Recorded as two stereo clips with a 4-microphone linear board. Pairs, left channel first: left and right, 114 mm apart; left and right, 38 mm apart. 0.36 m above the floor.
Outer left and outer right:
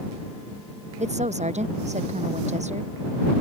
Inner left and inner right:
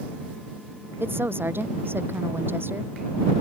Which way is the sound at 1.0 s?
85° right.